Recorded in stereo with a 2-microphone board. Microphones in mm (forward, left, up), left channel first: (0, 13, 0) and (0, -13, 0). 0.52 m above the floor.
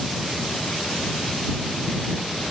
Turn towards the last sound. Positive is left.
No sound to turn to.